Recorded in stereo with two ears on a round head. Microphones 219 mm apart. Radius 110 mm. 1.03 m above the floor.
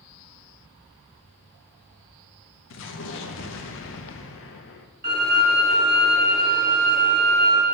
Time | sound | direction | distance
2.7 | an explosion | 55° left (ahead or behind) | 0.7 m
5.0 | a violin | 40° right (ahead or behind) | 2.5 m